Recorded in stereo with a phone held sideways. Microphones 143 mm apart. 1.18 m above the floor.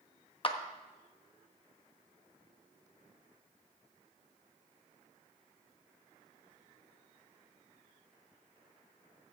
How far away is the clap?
About 1.2 m.